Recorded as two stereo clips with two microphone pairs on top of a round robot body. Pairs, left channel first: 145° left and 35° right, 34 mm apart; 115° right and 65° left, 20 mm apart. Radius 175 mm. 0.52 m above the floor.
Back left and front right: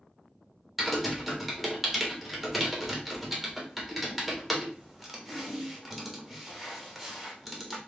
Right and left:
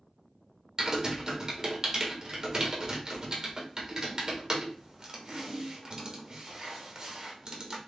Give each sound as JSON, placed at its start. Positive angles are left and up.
{"t": 0.8, "sound": "typing on a keyboard", "azimuth_deg": 55, "distance_m": 1.2}